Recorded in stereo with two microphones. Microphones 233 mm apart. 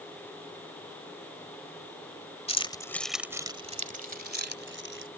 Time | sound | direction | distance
2.5 | keys jangling | 25° left (ahead or behind) | ?